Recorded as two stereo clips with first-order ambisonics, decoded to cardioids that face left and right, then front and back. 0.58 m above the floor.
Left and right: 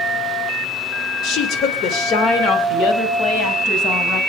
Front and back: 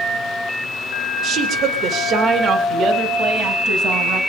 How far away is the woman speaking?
About 2.5 m.